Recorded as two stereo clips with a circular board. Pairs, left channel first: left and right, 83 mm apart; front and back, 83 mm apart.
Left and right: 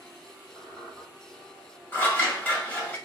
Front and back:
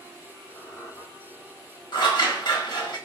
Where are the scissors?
20° left, 0.8 m.